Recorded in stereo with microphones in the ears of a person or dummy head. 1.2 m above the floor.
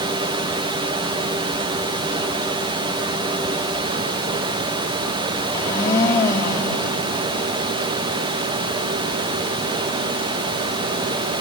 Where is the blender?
20° left (ahead or behind), 3.5 m.